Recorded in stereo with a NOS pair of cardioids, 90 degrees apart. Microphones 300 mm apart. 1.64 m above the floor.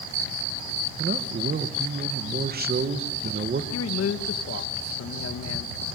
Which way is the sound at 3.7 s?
55° left.